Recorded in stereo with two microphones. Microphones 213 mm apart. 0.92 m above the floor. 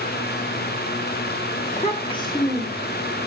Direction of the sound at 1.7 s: 40° left (ahead or behind).